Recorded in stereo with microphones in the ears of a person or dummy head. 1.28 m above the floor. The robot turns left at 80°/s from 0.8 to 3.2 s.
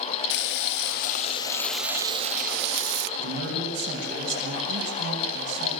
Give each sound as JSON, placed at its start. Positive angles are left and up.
{"t": 0.3, "sound": "frying", "azimuth_deg": 80, "distance_m": 1.3}
{"t": 3.2, "sound": "a man speaking", "side_deg": -60, "distance_m": 7.5}